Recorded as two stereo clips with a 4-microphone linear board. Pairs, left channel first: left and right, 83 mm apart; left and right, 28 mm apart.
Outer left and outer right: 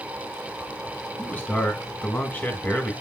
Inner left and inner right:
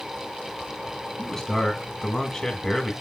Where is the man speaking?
15° left (ahead or behind), 1.4 m.